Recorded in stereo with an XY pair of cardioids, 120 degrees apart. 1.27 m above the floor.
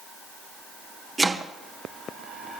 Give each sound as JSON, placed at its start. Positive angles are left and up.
{"t": 1.2, "sound": "chopping", "azimuth_deg": -15, "distance_m": 1.3}